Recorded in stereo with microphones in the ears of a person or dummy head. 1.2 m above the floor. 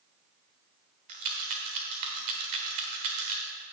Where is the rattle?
25° right (ahead or behind), 0.9 m.